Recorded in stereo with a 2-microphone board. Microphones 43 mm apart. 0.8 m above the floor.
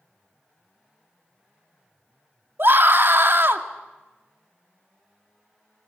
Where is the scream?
60° right (ahead or behind), 1.9 m.